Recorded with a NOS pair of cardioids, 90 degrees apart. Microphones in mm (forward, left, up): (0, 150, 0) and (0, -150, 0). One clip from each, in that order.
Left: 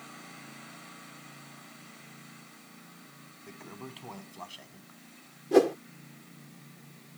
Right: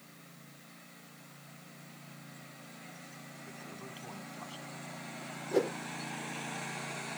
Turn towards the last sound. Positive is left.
turn(degrees=55)